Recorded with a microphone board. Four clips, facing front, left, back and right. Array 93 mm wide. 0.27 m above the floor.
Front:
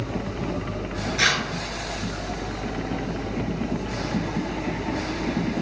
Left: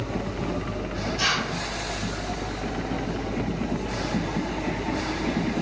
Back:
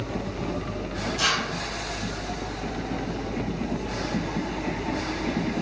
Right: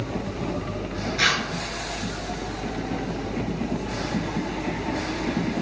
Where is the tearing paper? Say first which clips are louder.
Right 3 dB, front 3 dB; 40° right, 1.1 m.